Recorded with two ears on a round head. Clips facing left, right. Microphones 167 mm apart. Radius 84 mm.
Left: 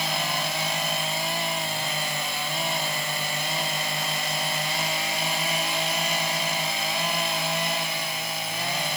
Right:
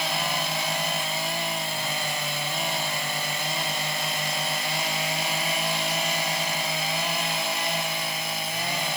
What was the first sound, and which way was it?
Only background noise.